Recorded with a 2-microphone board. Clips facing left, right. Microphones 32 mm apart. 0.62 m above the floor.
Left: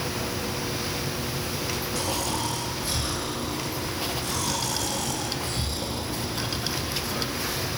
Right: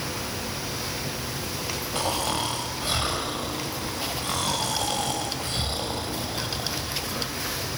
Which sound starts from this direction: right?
Snoring, at 1.9 s.